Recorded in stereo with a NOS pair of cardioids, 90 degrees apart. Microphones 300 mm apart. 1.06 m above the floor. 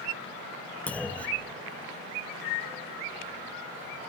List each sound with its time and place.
0.9 s a clunk: 5° left, 1.0 m